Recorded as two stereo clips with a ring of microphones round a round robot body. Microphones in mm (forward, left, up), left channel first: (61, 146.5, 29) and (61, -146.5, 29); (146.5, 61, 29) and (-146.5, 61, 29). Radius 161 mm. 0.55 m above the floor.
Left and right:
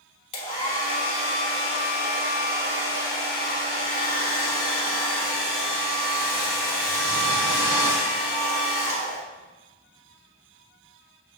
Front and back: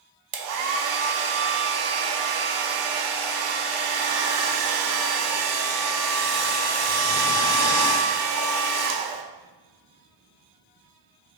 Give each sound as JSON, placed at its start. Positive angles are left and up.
{"t": 0.3, "sound": "a hair dryer", "azimuth_deg": 160, "distance_m": 0.6}